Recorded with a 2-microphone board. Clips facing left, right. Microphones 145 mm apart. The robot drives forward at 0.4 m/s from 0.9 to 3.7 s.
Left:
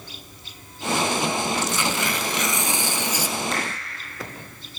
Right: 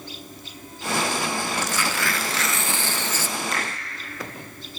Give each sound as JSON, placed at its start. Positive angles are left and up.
{"t": 1.6, "sound": "tearing paper", "side_deg": 25, "distance_m": 0.5}
{"t": 3.5, "sound": "a finger snap", "side_deg": 0, "distance_m": 3.5}